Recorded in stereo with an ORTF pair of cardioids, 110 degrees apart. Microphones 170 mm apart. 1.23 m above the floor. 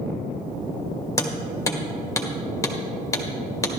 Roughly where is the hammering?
Ahead.